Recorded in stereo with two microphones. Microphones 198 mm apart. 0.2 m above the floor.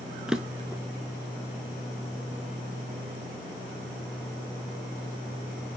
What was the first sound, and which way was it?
A drawer, 5° right (ahead or behind).